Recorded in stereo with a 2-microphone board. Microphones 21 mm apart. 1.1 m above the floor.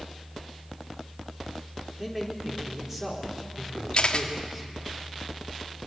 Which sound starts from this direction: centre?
A man speaking, at 2.0 s.